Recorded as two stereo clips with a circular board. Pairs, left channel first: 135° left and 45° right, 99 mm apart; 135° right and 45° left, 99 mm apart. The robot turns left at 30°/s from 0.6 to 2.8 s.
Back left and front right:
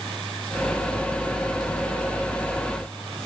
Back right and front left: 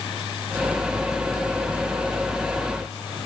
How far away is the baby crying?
No baby crying in this recording.